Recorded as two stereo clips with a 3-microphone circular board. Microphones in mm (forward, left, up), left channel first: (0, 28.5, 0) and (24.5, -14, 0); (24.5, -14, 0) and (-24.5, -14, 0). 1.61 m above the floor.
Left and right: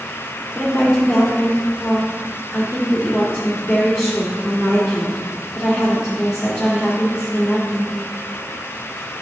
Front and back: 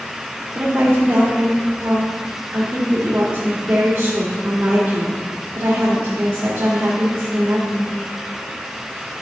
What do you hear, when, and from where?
0.6 s a woman speaking: 135° right, 1.8 m